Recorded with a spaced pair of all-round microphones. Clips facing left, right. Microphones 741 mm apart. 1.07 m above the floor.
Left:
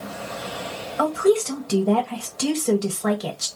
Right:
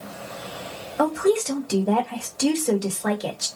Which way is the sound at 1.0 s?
35° left (ahead or behind).